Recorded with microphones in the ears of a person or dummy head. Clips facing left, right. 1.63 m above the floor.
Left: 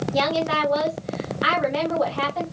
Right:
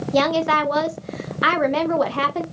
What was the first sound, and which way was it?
A woman speaking, 65° right (ahead or behind).